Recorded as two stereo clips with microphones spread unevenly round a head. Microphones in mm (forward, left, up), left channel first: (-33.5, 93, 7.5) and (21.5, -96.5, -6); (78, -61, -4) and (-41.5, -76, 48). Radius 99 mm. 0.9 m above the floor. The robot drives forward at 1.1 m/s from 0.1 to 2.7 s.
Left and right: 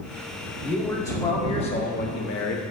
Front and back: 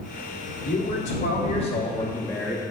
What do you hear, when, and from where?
0.6 s a man speaking: 25° left, 2.5 m; by 2.6 s 95° left, 1.0 m